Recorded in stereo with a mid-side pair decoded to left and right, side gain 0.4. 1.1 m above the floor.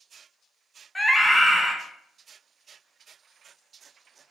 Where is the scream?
10° left, 1.0 m.